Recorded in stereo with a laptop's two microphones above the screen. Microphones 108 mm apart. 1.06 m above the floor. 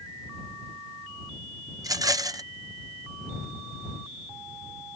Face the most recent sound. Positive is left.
turn(degrees=-35)  # may be behind; listen again after turning